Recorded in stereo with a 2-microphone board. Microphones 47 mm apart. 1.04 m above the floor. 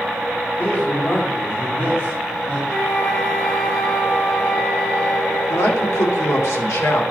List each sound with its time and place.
0.6 s a man speaking: 55° left (ahead or behind), 5 m
2.7 s a flute: 30° left (ahead or behind), 2.5 m
5.5 s a man speaking: 80° left, 2.5 m